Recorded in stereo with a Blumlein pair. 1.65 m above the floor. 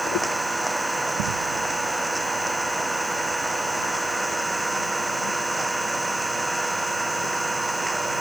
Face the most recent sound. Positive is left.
turn(degrees=-5)